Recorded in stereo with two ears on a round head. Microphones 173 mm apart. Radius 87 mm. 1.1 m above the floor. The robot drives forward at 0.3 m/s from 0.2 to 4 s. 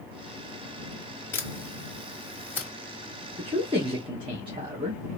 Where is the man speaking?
30° right (ahead or behind), 1.0 m.